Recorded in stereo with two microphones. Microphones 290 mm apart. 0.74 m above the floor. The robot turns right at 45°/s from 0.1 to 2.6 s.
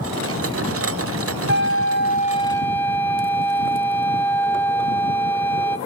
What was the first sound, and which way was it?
A flute, 125° left.